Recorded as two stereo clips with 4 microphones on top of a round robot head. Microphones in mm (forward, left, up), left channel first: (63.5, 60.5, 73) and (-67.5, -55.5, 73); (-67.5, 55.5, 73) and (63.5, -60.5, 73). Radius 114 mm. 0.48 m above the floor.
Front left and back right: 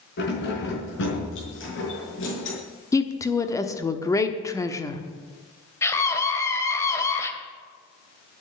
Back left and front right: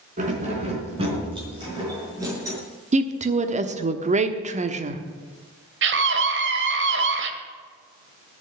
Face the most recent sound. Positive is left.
turn(degrees=-35)